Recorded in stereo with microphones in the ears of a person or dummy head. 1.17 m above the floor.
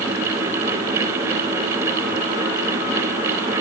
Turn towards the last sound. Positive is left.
No sound to turn to.